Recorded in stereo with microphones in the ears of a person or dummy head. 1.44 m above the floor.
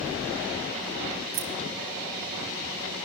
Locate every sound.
1.3 s keys jangling: 60° right (ahead or behind), 0.8 m